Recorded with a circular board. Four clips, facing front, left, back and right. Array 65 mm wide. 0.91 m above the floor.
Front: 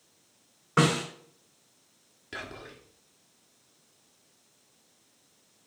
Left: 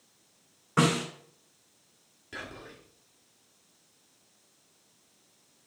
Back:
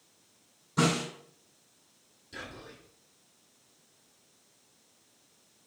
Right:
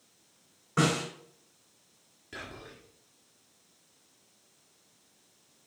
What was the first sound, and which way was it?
A snare drum, 15° left.